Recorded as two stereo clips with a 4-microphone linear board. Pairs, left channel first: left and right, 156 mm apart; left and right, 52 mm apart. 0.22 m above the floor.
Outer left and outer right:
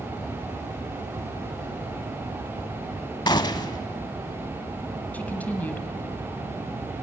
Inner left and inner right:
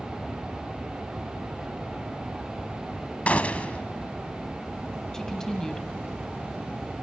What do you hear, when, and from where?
3.3 s a gunshot: 30° left (ahead or behind), 0.6 m
5.1 s a woman speaking: 10° left (ahead or behind), 1.4 m